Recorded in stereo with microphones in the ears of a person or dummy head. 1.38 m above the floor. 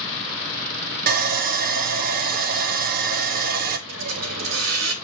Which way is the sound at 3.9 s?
90° right.